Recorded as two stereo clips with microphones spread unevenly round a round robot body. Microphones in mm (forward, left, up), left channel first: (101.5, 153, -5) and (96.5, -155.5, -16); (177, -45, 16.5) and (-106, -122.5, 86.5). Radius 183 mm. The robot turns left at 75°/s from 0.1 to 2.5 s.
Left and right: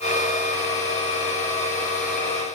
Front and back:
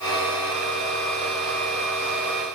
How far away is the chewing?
I don't hear chewing.